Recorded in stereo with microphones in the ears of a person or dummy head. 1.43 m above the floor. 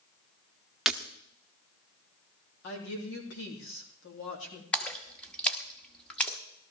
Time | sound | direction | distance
0.9 | breaking glass | centre (ahead or behind) | 0.9 m
2.6 | a woman speaking | 70° left (ahead or behind) | 3 m
4.7 | a splash | 5° left (ahead or behind) | 1.1 m